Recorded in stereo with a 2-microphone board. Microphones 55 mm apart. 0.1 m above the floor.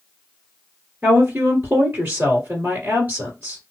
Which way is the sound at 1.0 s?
30° right (ahead or behind).